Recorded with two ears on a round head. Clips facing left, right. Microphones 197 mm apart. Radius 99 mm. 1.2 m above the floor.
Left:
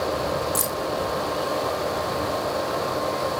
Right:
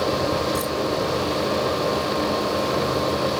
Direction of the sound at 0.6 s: 35° left (ahead or behind).